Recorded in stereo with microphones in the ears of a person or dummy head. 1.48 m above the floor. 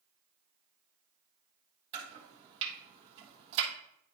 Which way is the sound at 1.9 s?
35° right (ahead or behind).